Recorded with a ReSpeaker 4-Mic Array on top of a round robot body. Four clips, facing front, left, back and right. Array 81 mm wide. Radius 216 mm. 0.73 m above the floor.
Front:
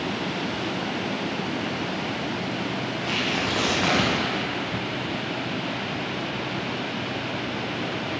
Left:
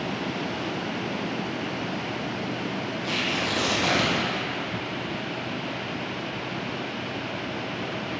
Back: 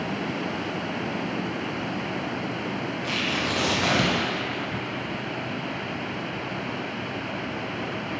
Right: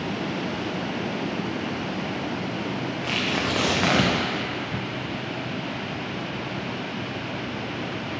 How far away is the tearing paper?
About 1.4 m.